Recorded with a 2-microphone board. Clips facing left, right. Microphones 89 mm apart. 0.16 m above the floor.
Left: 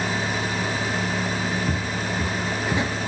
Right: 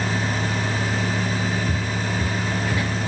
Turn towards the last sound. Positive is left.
turn(degrees=25)  # may be behind; listen again after turning